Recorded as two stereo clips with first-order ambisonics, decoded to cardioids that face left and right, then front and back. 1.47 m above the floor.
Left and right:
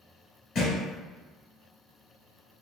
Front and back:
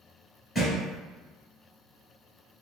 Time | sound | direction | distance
0.6 | a thud | 75° left | 1.8 m